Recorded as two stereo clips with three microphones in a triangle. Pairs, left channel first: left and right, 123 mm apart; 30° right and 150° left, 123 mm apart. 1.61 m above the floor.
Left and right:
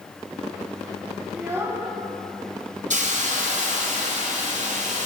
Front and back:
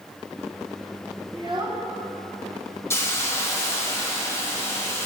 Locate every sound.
1.3 s a child speaking: 160° right, 1.3 m
2.9 s a hiss: 100° right, 1.3 m